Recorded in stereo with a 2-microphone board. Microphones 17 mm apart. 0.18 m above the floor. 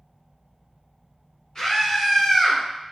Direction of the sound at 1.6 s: 20° left (ahead or behind).